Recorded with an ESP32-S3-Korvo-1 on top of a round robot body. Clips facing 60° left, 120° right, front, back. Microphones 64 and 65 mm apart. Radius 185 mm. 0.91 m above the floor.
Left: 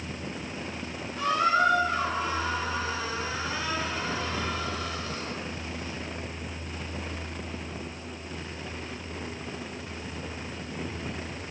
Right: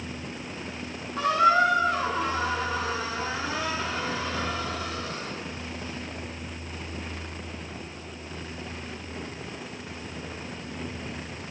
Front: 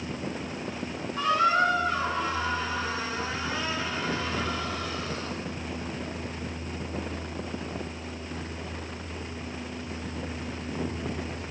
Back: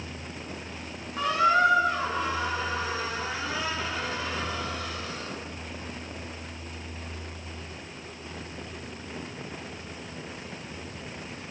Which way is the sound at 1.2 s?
100° right.